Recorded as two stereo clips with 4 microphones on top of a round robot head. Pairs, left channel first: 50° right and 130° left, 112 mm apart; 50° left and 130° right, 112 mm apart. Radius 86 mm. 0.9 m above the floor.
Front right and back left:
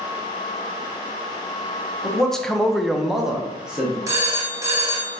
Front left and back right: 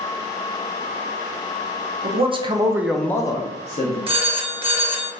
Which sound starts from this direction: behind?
A phone ringing, at 4.1 s.